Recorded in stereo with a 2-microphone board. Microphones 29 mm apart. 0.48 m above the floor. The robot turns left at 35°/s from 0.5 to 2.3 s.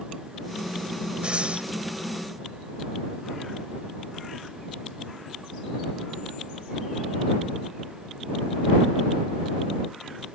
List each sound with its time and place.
1.2 s breathing: 40° right (ahead or behind); by 1.7 s 50° right (ahead or behind)